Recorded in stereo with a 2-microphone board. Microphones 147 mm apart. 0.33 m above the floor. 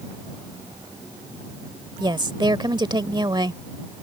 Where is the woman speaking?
30° right (ahead or behind).